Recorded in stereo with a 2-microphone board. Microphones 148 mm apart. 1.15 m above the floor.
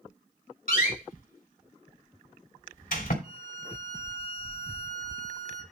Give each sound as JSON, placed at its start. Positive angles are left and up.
{"t": 0.7, "sound": "a door slam", "side_deg": 75, "distance_m": 2.5}
{"t": 3.2, "sound": "a violin", "side_deg": -65, "distance_m": 3.0}